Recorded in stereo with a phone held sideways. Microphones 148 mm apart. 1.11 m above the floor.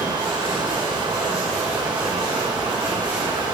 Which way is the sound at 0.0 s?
30° right (ahead or behind).